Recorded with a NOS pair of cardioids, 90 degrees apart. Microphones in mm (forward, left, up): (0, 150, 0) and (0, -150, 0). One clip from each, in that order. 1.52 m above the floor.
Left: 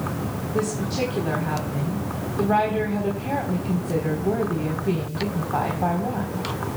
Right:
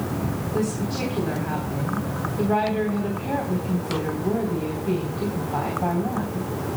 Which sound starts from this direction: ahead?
A woman speaking, at 0.5 s.